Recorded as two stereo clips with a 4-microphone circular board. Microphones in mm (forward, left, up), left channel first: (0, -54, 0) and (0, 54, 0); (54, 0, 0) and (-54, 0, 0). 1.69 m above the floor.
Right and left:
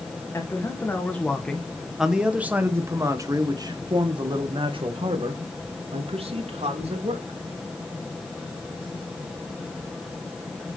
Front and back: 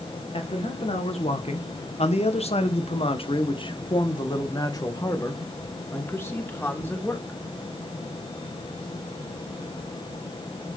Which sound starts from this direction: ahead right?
A man speaking, at 0.3 s.